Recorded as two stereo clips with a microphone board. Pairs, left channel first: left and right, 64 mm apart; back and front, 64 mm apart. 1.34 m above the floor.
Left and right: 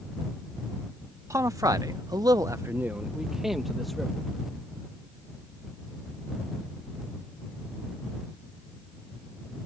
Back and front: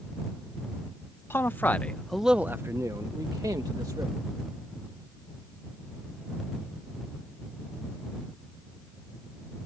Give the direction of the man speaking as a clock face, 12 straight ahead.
4 o'clock.